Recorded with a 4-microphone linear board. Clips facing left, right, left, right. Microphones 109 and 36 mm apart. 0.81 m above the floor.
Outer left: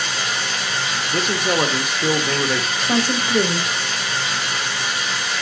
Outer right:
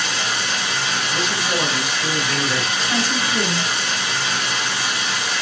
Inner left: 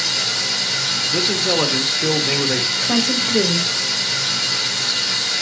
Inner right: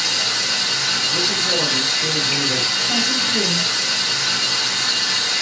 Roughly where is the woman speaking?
Left.